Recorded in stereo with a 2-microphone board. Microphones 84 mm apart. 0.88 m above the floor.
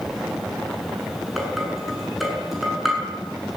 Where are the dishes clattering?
Centre (ahead or behind), 7.5 m.